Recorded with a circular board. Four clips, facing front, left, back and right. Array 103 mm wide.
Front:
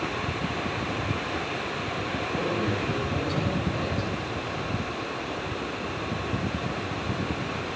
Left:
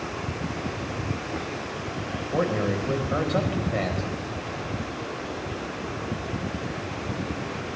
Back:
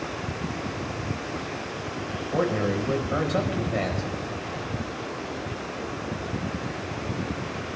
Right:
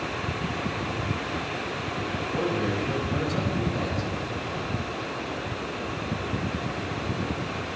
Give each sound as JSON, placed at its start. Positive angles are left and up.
{"t": 2.3, "sound": "a man speaking", "azimuth_deg": 130, "distance_m": 4.0}